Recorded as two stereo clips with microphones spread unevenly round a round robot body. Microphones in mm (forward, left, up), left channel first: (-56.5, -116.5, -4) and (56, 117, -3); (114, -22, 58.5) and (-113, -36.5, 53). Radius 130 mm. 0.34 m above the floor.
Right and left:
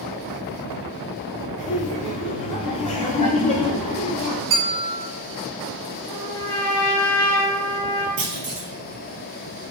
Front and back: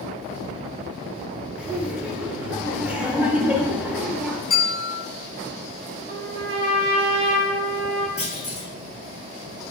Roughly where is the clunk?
Left.